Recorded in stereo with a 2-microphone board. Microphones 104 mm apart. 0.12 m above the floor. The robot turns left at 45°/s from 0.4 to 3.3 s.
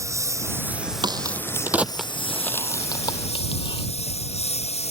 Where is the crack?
45° right (ahead or behind); by 3.9 s 50° left (ahead or behind).